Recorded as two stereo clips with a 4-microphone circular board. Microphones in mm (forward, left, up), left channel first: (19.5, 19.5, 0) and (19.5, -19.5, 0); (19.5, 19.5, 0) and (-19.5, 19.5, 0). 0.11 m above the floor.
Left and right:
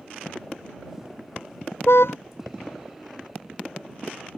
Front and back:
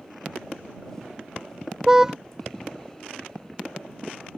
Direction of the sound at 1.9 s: 105° left.